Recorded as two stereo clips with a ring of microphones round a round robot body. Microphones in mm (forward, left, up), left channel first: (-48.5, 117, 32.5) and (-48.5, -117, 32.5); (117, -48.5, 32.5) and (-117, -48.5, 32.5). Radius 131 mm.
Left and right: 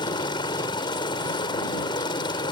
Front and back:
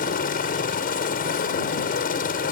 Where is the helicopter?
30° left.